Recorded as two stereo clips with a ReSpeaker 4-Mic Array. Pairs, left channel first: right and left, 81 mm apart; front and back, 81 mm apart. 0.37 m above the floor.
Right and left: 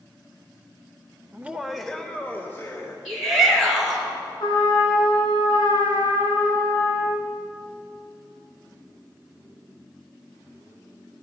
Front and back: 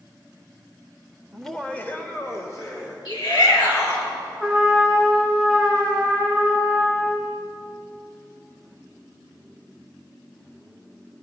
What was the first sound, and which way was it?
Laughter, 95° left.